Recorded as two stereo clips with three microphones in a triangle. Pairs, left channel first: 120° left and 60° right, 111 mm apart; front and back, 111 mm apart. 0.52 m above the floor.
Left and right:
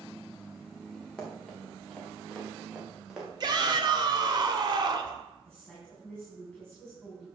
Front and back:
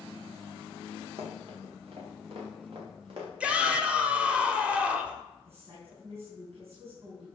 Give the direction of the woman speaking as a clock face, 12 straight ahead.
5 o'clock.